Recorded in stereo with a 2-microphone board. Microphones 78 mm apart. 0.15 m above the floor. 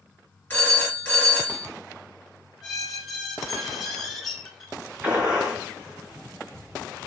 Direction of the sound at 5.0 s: 15° right (ahead or behind).